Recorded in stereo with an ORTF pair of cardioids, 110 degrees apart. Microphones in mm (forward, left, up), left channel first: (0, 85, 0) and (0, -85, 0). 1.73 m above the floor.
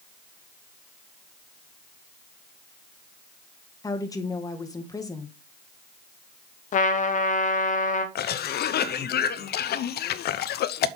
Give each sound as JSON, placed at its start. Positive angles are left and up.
{"t": 3.8, "sound": "a woman speaking", "azimuth_deg": 20, "distance_m": 1.8}
{"t": 6.7, "sound": "a trumpet", "azimuth_deg": 45, "distance_m": 1.2}
{"t": 8.2, "sound": "a cough", "azimuth_deg": 70, "distance_m": 0.8}